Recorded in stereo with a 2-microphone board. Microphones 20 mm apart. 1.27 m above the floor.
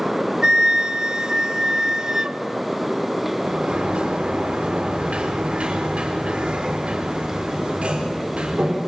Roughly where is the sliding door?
Right.